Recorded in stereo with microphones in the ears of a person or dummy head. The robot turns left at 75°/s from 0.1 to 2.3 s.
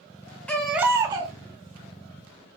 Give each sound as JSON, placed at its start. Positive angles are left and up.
{"t": 0.5, "sound": "a baby crying", "azimuth_deg": 10, "distance_m": 1.1}